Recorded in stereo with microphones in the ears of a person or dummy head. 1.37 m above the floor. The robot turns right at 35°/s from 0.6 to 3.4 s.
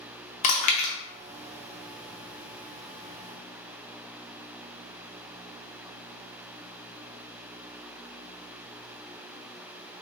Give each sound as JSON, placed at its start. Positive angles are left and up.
{"t": 0.4, "sound": "chewing", "side_deg": 40, "distance_m": 0.7}